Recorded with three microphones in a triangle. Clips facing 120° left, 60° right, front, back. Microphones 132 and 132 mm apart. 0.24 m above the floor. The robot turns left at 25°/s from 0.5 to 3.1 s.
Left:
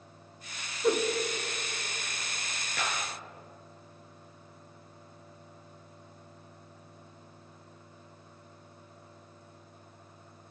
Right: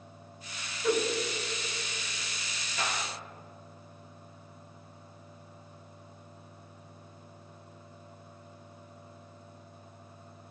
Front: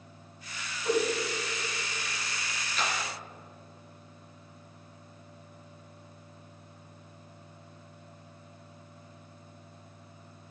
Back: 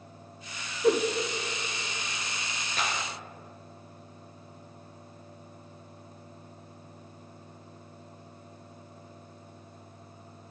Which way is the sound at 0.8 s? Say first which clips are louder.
Left 1 dB, back 4 dB; 175° right.